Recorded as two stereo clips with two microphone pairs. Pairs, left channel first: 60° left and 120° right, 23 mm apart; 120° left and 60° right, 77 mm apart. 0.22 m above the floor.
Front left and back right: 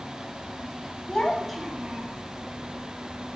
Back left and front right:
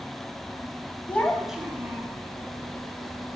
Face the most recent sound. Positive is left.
turn(degrees=-105)